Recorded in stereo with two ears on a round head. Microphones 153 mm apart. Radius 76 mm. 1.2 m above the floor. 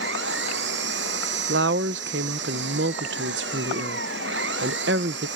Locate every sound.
0.0 s an engine running: 75° right (ahead or behind)
1.5 s a woman speaking: 75° right (ahead or behind)